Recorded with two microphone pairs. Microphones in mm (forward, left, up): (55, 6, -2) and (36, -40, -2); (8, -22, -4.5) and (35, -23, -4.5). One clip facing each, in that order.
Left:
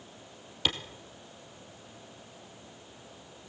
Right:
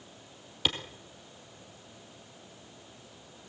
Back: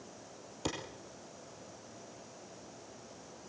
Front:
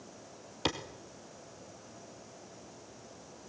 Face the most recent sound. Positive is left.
turn(degrees=-25)